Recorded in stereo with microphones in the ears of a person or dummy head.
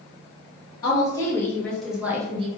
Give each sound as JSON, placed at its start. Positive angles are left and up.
{"t": 0.8, "sound": "a woman speaking", "side_deg": 20, "distance_m": 1.8}